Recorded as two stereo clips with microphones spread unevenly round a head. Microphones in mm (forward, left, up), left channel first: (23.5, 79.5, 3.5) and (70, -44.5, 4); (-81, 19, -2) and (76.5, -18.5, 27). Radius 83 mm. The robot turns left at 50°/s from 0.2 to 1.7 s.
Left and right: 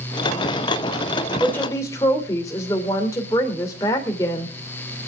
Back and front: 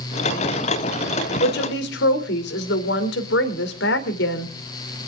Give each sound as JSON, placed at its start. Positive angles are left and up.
{"t": 1.4, "sound": "a woman speaking", "azimuth_deg": -160, "distance_m": 2.5}